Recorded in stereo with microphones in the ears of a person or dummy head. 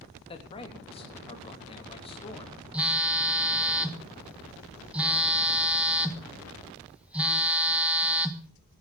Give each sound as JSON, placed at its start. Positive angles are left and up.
{"t": 0.3, "sound": "a man speaking", "side_deg": 30, "distance_m": 3.0}
{"t": 2.7, "sound": "a phone buzzing", "side_deg": -5, "distance_m": 1.7}